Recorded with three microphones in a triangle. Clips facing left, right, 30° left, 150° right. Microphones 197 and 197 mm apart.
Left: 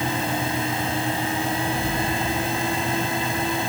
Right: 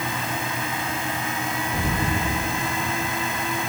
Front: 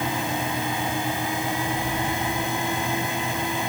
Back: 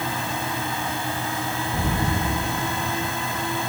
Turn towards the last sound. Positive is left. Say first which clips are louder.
# left 1 dB, back 2 dB
turn(degrees=-150)